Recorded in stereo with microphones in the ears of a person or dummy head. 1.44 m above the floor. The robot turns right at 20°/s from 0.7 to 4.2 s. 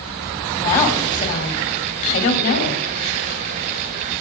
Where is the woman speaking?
20° left, 3 m; by 2.8 s 65° left, 3 m.